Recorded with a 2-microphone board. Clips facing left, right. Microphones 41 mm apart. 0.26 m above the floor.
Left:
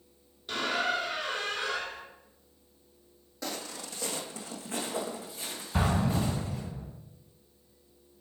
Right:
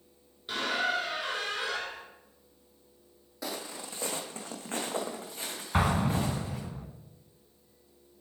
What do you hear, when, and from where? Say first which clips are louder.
0.5 s a squeak: even; 10° right (ahead or behind), 1.6 m
3.4 s footsteps: even; 10° right (ahead or behind), 0.8 m; by 6.7 s 60° right (ahead or behind), 2 m
5.7 s an explosion: right 1 dB; 55° right (ahead or behind), 0.9 m